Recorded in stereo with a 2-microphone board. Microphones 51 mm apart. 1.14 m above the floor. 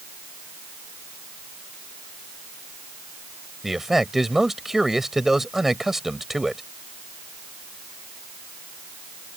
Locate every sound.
3.6 s a man speaking: 5° right (ahead or behind)